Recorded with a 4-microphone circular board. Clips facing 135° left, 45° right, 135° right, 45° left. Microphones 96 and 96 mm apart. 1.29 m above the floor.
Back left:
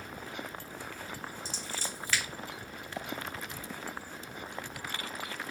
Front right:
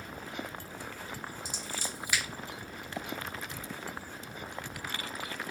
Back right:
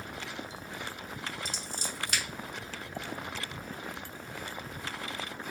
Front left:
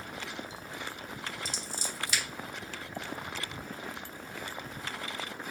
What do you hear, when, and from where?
1.4 s scissors: 120° right, 1.2 m